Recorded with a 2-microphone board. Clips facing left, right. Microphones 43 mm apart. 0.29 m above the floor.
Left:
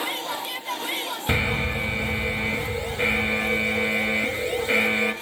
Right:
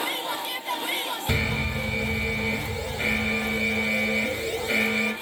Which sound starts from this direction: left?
An alarm, at 1.3 s.